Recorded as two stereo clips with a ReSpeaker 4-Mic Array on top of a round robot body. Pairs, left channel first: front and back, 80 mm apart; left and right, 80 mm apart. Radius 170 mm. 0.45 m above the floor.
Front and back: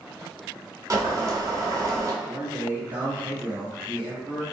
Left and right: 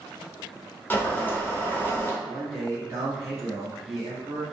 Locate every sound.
0.9 s boiling: 150° left, 1.0 m
2.2 s a man speaking: 130° right, 1.6 m